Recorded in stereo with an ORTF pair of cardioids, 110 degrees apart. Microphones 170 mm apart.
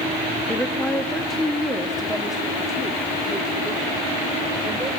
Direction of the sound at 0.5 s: 5° left.